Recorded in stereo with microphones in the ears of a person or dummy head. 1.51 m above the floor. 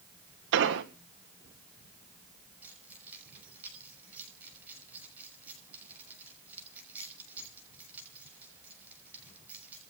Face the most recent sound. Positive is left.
turn(degrees=-10)  # may be behind; listen again after turning